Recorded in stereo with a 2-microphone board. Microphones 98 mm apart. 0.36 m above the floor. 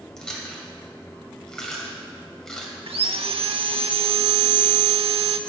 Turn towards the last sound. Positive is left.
turn(degrees=-70)  # may be behind; listen again after turning